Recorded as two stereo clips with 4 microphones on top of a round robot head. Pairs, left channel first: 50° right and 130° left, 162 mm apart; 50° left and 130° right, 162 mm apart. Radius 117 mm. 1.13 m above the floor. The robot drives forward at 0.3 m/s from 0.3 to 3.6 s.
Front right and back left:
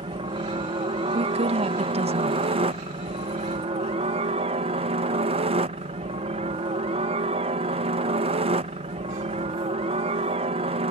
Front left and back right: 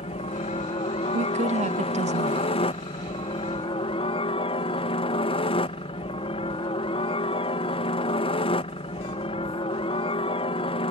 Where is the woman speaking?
175° right; by 2.5 s straight behind.